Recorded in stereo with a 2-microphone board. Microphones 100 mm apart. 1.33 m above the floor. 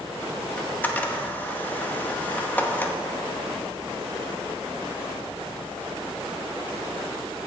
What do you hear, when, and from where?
0.6 s a camera shutter: 15° left (ahead or behind), 0.8 m